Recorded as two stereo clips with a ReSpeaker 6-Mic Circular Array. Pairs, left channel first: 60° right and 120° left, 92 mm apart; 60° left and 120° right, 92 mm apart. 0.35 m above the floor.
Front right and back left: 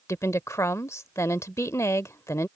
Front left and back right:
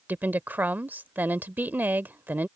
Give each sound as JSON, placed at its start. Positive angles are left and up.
{"t": 0.1, "sound": "a woman speaking", "azimuth_deg": -70}